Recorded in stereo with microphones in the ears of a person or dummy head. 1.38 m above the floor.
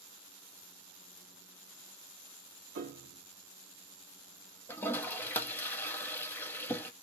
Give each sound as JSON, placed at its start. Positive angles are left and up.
{"t": 2.8, "sound": "a piano", "side_deg": -60, "distance_m": 1.0}
{"t": 4.7, "sound": "a toilet flushing", "side_deg": 10, "distance_m": 0.7}